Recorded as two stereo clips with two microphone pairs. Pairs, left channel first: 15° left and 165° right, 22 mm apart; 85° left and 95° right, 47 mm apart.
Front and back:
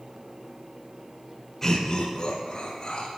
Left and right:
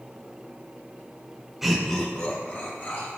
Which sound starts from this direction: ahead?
Laughter, at 1.6 s.